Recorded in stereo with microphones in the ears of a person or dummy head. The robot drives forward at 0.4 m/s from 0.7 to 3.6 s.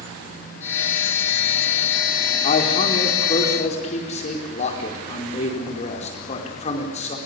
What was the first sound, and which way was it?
A man speaking, 45° left (ahead or behind).